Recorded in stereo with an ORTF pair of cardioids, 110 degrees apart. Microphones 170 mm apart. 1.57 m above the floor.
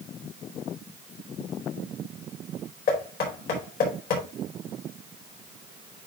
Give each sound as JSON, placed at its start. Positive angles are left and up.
{"t": 2.9, "sound": "knocking", "azimuth_deg": 60, "distance_m": 4.5}